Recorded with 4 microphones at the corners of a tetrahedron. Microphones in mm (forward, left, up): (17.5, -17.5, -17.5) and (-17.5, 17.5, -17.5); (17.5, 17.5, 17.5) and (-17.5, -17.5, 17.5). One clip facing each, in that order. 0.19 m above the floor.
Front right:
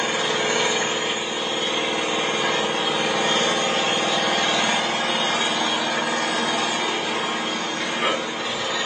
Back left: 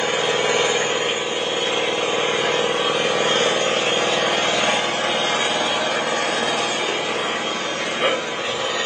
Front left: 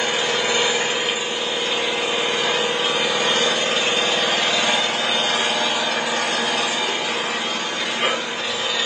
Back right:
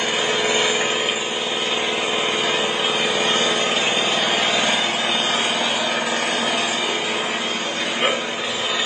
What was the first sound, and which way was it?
An engine running, 140° left.